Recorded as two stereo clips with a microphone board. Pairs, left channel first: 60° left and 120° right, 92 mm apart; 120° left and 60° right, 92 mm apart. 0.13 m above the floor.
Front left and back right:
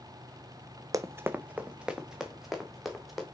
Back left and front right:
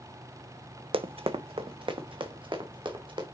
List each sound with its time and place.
0.9 s running footsteps: 70° right, 0.5 m; by 3.2 s 30° right, 2 m